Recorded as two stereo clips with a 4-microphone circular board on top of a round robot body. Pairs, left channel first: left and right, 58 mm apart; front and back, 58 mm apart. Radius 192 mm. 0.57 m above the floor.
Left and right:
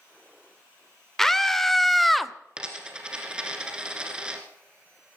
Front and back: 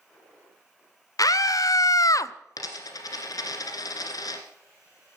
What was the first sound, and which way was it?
A scream, 5° left.